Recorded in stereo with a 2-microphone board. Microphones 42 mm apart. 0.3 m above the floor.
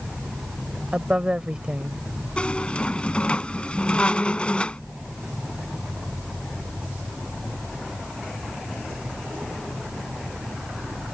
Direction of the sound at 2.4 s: 25° left (ahead or behind).